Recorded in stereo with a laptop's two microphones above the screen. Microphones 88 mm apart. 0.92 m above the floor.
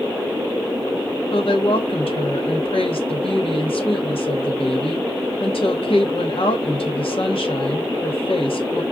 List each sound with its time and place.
1.3 s a woman speaking: 80° left, 1.1 m